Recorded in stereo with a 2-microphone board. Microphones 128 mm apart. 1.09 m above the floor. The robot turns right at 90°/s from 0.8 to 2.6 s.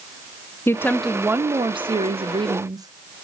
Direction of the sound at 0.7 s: 155° left.